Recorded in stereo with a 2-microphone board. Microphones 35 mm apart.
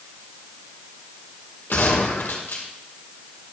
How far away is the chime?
I don't hear a chime.